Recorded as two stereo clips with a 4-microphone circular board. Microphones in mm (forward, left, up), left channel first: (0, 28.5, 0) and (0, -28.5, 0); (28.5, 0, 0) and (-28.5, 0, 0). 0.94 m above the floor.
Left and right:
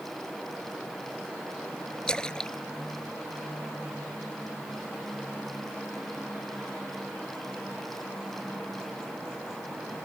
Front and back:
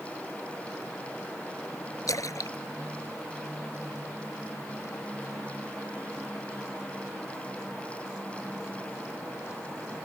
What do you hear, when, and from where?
2.1 s a splash: 15° left